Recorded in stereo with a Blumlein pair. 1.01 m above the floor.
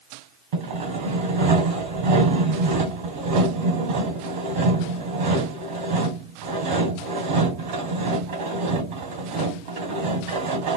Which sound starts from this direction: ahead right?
Sawing, at 0.5 s.